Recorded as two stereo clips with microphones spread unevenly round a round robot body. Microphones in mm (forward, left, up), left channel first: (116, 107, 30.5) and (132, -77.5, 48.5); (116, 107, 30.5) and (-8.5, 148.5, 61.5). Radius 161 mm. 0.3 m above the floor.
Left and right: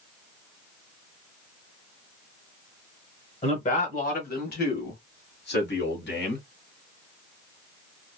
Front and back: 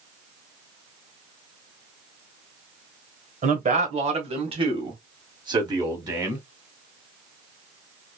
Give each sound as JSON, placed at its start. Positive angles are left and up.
{"t": 3.4, "sound": "a man speaking", "azimuth_deg": 140, "distance_m": 1.3}